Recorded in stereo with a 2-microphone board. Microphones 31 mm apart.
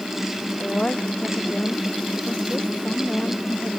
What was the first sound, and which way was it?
A woman speaking, 40° left (ahead or behind).